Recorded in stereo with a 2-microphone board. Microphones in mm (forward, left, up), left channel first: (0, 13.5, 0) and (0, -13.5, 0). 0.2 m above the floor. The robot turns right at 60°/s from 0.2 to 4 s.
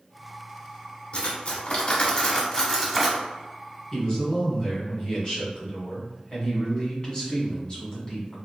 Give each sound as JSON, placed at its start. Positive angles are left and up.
{"t": 1.1, "sound": "cutlery clinking", "azimuth_deg": 65, "distance_m": 1.0}
{"t": 3.9, "sound": "a man speaking", "side_deg": 25, "distance_m": 1.4}